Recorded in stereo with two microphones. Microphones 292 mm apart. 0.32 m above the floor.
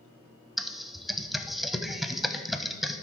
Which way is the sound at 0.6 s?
Centre (ahead or behind).